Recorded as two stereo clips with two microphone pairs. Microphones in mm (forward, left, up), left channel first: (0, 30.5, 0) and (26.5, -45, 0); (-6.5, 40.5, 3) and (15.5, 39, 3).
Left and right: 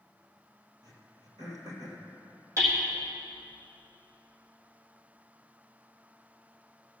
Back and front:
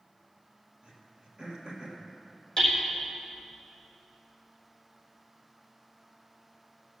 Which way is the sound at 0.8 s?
50° right.